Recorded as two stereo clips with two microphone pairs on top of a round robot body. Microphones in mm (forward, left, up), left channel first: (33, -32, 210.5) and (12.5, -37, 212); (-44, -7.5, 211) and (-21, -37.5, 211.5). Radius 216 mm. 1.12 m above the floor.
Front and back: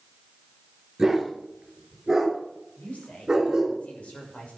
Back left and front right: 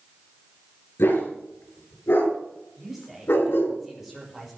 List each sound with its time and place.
1.0 s a dog barking: 120° left, 5 m; by 3.8 s 130° left, 3.5 m
2.8 s a woman speaking: 30° left, 6.5 m